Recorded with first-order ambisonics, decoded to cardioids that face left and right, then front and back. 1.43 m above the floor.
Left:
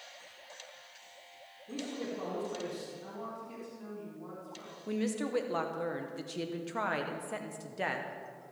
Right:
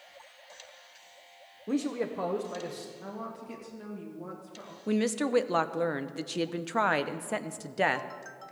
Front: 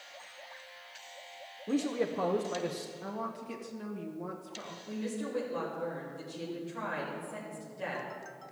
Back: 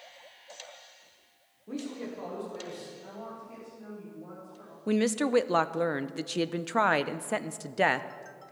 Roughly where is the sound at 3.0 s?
Ahead right.